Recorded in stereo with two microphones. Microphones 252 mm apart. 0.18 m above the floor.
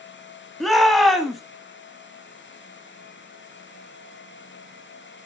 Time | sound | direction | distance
0.6 | a shout | centre (ahead or behind) | 1.0 m